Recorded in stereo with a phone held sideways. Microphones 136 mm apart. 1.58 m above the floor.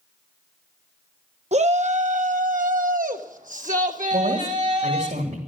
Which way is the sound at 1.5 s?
55° right (ahead or behind).